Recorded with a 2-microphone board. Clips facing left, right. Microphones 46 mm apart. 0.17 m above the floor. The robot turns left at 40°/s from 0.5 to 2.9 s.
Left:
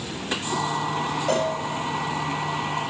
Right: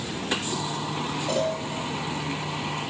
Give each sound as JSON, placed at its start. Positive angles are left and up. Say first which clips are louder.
{"t": 1.3, "sound": "a cowbell", "louder": "left 2 dB", "side_deg": 70, "distance_m": 9.0}